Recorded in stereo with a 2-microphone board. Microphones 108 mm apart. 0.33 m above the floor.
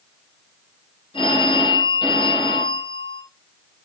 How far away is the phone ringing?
About 8.5 m.